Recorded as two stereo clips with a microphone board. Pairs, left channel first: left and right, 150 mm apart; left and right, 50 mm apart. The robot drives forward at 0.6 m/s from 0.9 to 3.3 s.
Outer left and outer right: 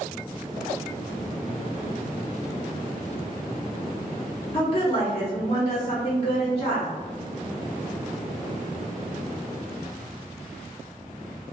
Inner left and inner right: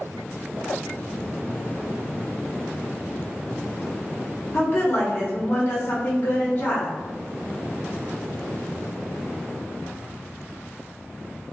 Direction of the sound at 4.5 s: 40° left (ahead or behind).